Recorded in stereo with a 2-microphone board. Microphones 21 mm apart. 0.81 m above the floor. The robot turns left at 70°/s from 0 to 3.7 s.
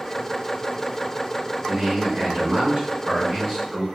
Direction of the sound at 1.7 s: 45° right.